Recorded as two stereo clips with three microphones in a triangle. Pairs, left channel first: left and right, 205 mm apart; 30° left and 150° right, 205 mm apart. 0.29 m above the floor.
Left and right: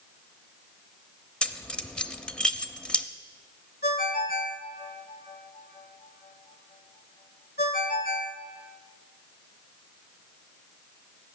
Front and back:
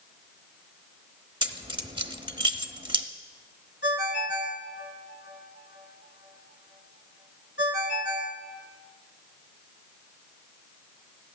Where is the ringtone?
50° left, 1.9 m.